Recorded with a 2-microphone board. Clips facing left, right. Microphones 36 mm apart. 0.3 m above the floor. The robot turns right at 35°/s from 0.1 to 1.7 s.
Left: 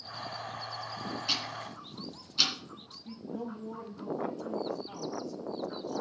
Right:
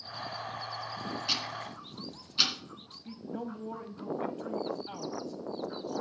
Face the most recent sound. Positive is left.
turn(degrees=-45)  # may be behind; listen again after turning